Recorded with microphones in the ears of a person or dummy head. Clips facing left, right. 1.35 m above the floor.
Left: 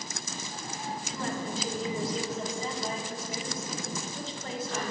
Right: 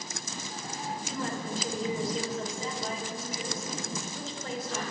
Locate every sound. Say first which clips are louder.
1.1 s a woman speaking: left 1 dB; centre (ahead or behind), 5.5 m